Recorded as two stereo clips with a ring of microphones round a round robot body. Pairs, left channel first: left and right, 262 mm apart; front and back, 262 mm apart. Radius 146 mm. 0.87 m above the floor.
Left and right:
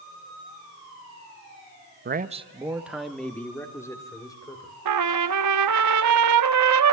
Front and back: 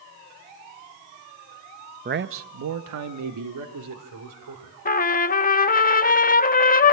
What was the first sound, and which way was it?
A man speaking, 130° right.